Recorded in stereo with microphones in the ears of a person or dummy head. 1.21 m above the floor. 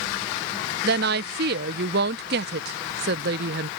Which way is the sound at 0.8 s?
50° right (ahead or behind).